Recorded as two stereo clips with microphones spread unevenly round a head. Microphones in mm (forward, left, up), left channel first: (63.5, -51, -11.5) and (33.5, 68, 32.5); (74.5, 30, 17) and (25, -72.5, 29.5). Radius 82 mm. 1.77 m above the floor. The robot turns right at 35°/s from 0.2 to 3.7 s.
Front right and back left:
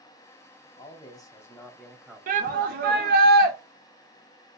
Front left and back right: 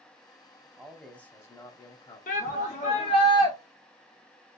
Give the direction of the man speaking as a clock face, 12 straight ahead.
1 o'clock.